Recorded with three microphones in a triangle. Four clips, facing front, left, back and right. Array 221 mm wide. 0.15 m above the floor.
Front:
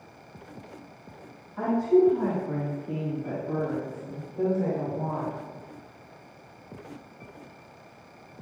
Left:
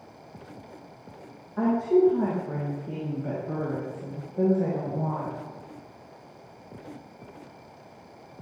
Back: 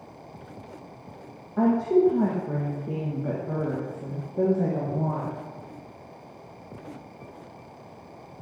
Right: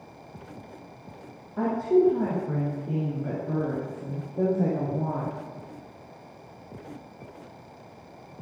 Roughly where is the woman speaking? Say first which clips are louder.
Left 1 dB, back 1 dB; behind right.